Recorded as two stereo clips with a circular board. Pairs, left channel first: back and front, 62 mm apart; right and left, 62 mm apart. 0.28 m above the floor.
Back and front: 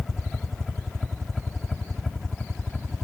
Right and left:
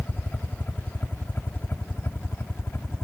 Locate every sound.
0.0 s a helicopter: 100° right; by 3.0 s 95° right